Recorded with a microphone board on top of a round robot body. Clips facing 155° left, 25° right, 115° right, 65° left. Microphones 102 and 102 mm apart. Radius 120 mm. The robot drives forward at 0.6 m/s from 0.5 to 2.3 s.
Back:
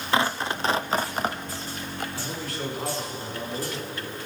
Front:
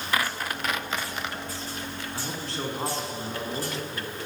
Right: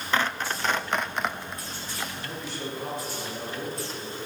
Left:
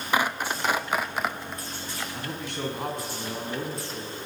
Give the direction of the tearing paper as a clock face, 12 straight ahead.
8 o'clock.